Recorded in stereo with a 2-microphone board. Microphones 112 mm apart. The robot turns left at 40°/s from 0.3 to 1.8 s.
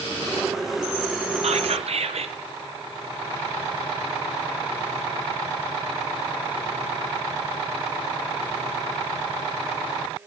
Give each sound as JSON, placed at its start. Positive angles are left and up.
{"t": 1.4, "sound": "whispering", "side_deg": -70, "distance_m": 0.6}